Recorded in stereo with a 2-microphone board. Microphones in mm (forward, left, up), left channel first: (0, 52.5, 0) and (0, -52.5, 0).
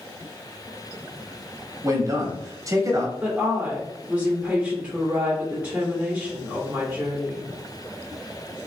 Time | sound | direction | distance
1.8 | a man speaking | 30° right (ahead or behind) | 1.2 m
3.2 | a woman speaking | 10° right (ahead or behind) | 1.7 m